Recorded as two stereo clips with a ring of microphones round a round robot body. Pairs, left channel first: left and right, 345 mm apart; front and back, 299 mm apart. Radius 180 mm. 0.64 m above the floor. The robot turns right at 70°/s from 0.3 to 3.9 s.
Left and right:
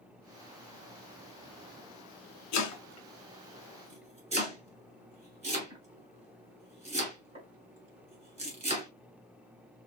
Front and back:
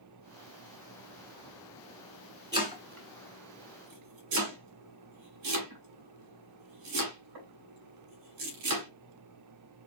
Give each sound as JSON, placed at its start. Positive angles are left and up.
{"t": 2.5, "sound": "chopping", "azimuth_deg": 100, "distance_m": 2.0}